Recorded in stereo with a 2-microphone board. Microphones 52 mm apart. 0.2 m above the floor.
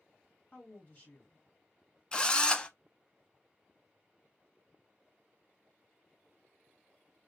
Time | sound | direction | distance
0.5 | a woman speaking | 35° left (ahead or behind) | 2.5 m
2.1 | a drill | 20° left (ahead or behind) | 0.5 m